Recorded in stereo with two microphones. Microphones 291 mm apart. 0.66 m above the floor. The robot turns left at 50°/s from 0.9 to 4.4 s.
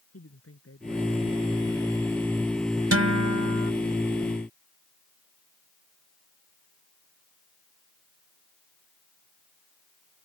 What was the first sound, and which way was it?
A woman speaking, 125° left.